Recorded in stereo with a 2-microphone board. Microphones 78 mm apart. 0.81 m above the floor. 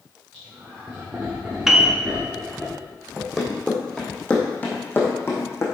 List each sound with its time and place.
0.3 s laughter: 25° right (ahead or behind), 3.5 m; by 2.7 s 10° right (ahead or behind), 2 m
1.7 s a piano: 5° right (ahead or behind), 1.0 m
3.2 s running footsteps: 5° right (ahead or behind), 2.5 m; by 5.6 s 35° left (ahead or behind), 3 m